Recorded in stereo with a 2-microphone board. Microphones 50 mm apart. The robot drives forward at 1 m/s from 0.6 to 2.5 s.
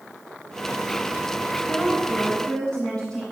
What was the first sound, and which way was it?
A woman speaking, 20° left (ahead or behind).